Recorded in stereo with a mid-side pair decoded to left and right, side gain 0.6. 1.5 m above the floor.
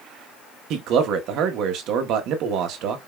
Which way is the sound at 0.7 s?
65° right.